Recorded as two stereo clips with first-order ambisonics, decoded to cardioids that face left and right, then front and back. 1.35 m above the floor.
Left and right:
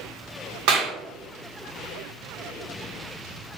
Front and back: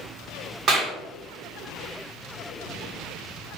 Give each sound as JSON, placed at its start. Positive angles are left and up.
{"t": 0.7, "sound": "a clap", "azimuth_deg": -120, "distance_m": 1.1}